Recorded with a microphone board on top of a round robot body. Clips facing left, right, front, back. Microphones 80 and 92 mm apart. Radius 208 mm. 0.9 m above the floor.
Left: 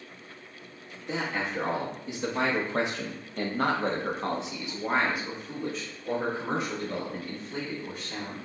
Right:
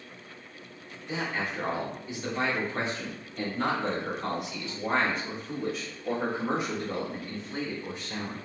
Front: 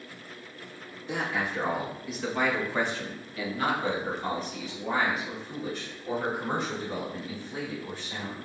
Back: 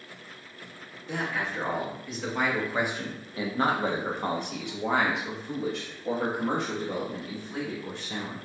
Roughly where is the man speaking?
Left.